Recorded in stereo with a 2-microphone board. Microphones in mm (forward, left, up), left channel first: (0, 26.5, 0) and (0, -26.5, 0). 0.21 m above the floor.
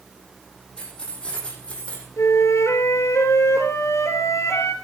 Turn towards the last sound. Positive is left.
turn(degrees=70)  # may be behind; listen again after turning